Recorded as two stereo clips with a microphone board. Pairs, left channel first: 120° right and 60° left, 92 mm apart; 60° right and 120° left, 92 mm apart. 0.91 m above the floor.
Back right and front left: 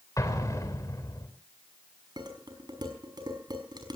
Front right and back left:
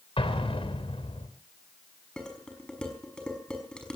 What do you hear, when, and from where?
0.2 s an explosion: 65° right, 3.5 m
2.2 s dishes clattering: 20° left, 5.5 m